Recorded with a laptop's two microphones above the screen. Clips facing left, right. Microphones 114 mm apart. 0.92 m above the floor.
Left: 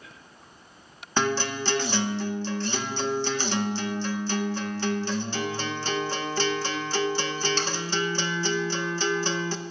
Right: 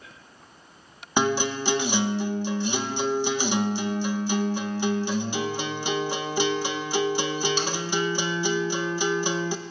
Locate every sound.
1.2 s a guitar: 15° right (ahead or behind), 0.6 m